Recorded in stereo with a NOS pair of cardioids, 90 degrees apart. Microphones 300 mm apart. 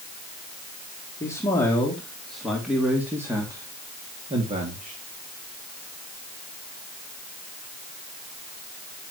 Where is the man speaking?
10° left, 3.5 m; by 5.0 s 25° right, 3 m.